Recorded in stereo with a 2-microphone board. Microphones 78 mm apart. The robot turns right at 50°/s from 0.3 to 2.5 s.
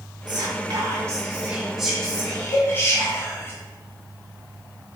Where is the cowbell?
35° left (ahead or behind), 1.7 m.